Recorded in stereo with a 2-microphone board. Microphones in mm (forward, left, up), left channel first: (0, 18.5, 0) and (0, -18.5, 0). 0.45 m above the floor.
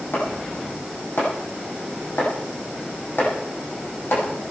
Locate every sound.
0.1 s chopping: 75° left (ahead or behind), 8.5 m